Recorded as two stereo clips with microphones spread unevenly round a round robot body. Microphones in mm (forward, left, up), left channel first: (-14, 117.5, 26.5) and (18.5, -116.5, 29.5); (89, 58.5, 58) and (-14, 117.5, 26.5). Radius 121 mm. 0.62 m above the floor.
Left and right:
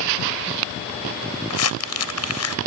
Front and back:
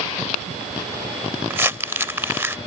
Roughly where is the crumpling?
Left.